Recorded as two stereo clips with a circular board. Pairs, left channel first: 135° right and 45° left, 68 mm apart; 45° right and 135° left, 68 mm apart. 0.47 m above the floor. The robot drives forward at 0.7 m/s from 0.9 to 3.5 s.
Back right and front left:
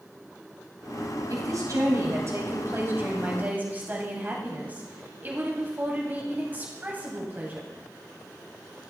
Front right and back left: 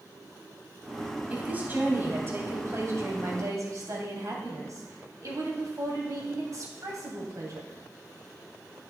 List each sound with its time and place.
1.3 s a woman speaking: 70° left, 2.5 m; by 7.7 s 105° left, 2.5 m